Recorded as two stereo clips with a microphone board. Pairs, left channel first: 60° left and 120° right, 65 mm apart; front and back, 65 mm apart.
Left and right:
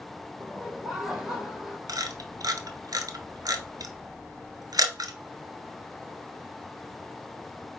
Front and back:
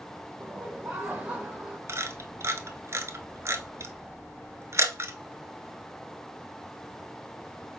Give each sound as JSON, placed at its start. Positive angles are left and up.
{"t": 0.4, "sound": "laughter", "azimuth_deg": 170, "distance_m": 0.9}
{"t": 1.9, "sound": "a camera shutter", "azimuth_deg": -135, "distance_m": 0.7}